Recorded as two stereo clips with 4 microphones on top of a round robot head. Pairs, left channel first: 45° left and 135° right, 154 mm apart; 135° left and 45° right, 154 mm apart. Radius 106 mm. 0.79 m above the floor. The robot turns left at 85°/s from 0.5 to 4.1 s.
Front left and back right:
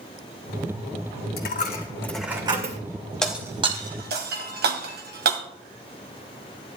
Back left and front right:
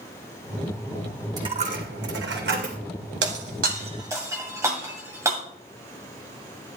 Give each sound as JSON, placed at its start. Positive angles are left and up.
{"t": 1.4, "sound": "a dropped coin", "azimuth_deg": 25, "distance_m": 2.5}
{"t": 3.2, "sound": "breaking glass", "azimuth_deg": -40, "distance_m": 2.0}